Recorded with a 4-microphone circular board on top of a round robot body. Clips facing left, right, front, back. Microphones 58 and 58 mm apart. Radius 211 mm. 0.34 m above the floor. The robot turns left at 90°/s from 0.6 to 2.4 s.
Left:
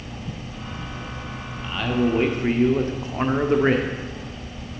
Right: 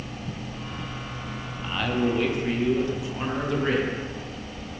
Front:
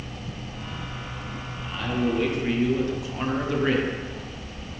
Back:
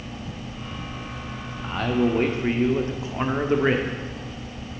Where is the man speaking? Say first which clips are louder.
Left 3 dB, back 4 dB; 165° right, 1.4 m; by 3.9 s 125° left, 1.4 m.